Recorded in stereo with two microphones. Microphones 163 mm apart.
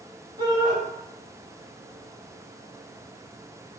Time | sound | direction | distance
0.4 | a shout | 35° right (ahead or behind) | 1.7 m